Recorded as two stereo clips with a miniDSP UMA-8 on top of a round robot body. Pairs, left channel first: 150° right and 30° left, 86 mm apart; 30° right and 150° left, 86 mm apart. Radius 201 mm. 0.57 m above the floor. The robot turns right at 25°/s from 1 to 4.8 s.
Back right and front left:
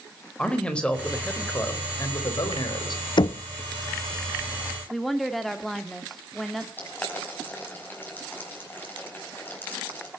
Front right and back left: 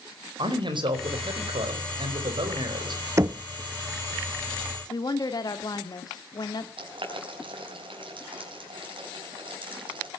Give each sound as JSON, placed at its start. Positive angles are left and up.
{"t": 0.4, "sound": "a man speaking", "azimuth_deg": 130, "distance_m": 4.0}
{"t": 3.2, "sound": "knocking", "azimuth_deg": -160, "distance_m": 0.7}
{"t": 4.9, "sound": "a woman speaking", "azimuth_deg": -60, "distance_m": 2.5}
{"t": 6.8, "sound": "boiling", "azimuth_deg": 140, "distance_m": 5.0}